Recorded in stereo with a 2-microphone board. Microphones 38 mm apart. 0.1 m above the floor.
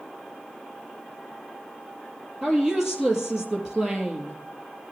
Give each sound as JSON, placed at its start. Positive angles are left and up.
{"t": 2.4, "sound": "a woman speaking", "side_deg": -15, "distance_m": 2.5}